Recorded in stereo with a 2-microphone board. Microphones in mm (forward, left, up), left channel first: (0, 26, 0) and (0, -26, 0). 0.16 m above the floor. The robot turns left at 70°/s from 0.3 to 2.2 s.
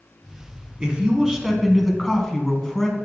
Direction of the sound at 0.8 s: 20° right (ahead or behind).